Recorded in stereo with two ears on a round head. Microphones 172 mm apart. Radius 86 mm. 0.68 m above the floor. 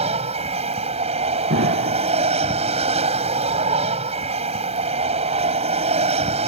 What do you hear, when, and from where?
0.0 s an aircraft: 35° right (ahead or behind)
1.5 s an explosion: 70° right (ahead or behind)